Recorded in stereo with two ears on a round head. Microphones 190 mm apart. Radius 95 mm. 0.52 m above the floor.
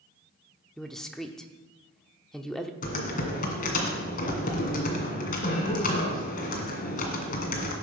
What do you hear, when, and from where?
0.8 s a man speaking: 5° left (ahead or behind), 0.9 m
2.8 s typing on a keyboard: 40° left (ahead or behind), 2 m